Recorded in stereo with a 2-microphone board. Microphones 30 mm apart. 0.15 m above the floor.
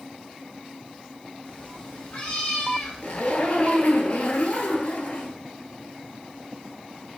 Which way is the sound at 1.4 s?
60° left (ahead or behind).